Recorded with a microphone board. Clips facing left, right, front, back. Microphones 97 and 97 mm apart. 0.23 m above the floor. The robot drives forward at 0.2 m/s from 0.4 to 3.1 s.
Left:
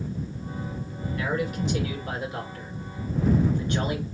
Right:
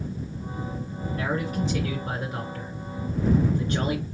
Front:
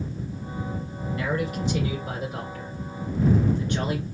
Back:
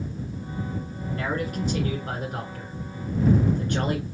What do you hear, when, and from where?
1.2 s a man speaking: 140° right, 2.5 m; by 4.0 s 145° right, 2.5 m